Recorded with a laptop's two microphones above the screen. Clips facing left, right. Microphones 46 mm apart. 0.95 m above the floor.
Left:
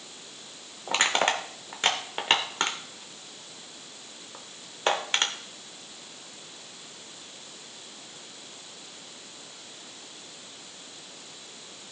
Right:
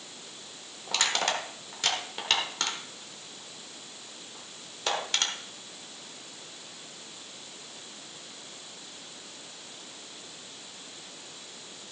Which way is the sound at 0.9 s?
30° left (ahead or behind).